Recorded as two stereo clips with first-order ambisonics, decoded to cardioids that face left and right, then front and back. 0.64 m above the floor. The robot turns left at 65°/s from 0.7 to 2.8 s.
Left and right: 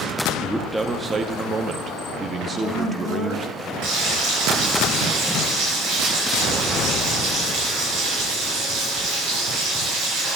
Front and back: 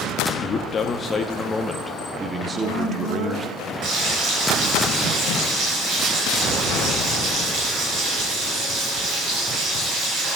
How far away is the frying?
About 4.5 m.